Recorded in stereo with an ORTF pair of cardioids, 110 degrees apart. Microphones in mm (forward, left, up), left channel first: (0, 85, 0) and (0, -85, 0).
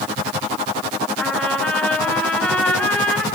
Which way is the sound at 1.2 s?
5° left.